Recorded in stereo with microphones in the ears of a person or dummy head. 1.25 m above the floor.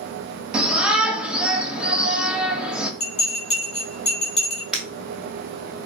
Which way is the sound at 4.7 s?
10° right (ahead or behind).